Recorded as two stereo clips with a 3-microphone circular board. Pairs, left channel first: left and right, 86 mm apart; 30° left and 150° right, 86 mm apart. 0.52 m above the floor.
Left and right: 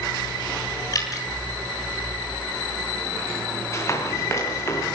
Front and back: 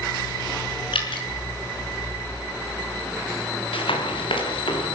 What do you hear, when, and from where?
0.9 s dripping: 45° left, 5.5 m
3.7 s running footsteps: 35° left, 6 m